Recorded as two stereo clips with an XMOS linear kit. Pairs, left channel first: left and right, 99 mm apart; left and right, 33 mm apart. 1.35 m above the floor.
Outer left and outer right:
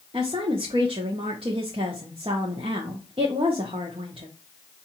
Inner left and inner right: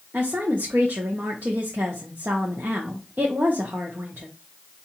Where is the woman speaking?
70° right (ahead or behind), 0.9 m.